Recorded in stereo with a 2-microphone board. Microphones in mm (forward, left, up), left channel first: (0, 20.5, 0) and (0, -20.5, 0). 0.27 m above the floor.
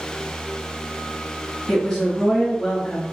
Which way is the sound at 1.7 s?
15° left (ahead or behind).